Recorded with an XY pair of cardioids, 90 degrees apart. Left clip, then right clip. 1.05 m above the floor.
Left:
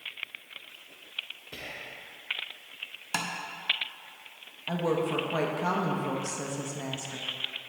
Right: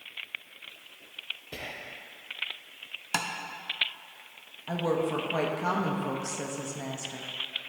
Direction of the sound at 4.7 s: Straight ahead.